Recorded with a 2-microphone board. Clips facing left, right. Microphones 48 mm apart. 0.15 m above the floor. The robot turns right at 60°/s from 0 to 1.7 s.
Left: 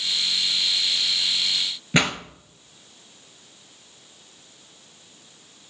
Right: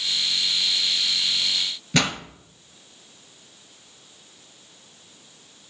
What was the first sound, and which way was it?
A pop, 20° left (ahead or behind).